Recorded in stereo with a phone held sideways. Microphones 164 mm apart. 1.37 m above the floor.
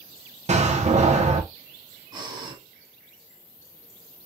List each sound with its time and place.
0.5 s a door slam: 45° right (ahead or behind), 0.8 m
2.1 s breathing: 25° right (ahead or behind), 1.7 m